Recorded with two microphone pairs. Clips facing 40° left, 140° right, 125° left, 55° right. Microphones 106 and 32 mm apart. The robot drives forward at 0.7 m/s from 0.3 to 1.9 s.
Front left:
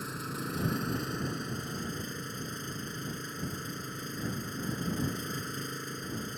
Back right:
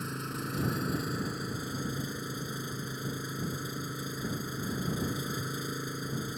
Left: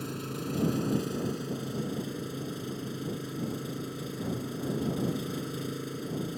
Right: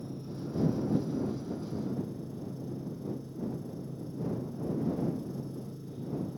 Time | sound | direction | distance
0.0 | an engine running | 130° left | ?